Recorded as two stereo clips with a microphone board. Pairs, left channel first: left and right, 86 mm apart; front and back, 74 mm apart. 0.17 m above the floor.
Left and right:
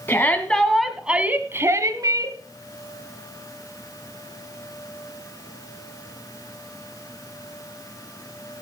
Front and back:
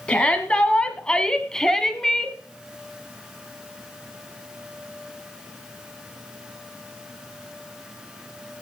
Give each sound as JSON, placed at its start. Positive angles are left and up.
{"t": 0.1, "sound": "a shout", "azimuth_deg": 60, "distance_m": 1.1}